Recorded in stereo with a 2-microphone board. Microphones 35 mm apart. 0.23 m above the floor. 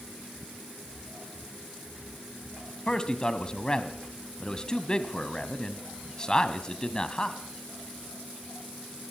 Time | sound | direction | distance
2.9 | a man speaking | 20° left (ahead or behind) | 1.6 m